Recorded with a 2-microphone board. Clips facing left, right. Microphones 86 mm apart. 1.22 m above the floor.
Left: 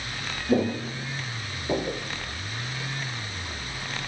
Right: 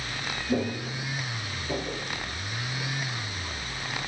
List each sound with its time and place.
0.5 s footsteps: 30° left (ahead or behind), 1.3 m; by 2.0 s 40° left (ahead or behind), 1.9 m